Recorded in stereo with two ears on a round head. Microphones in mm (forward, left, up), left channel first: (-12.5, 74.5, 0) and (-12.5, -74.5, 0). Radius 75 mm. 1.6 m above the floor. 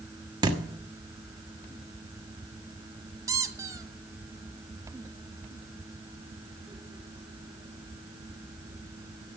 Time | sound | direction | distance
0.4 | a thud | 25° right (ahead or behind) | 1.3 m
3.3 | a squeak | 20° right (ahead or behind) | 0.8 m